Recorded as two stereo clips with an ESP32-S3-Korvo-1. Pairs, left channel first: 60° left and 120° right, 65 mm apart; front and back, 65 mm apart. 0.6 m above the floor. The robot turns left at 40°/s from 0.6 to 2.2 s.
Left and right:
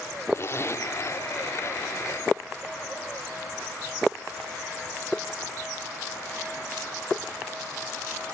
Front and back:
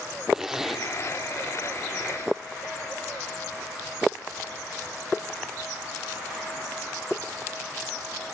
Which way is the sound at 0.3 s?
100° left.